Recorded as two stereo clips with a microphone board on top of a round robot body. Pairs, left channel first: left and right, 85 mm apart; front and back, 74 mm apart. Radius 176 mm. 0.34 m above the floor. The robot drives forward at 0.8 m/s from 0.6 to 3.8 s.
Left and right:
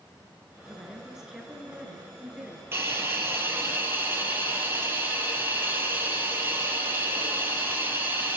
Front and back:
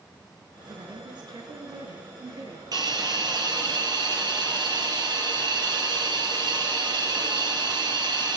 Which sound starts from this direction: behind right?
A hiss, at 2.7 s.